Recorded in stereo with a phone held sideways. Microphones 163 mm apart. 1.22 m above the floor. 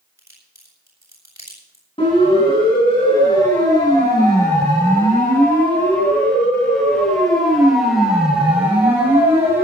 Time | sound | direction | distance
0.2 | a crack | 20° right (ahead or behind) | 7.5 m
2.0 | a siren | 30° left (ahead or behind) | 9 m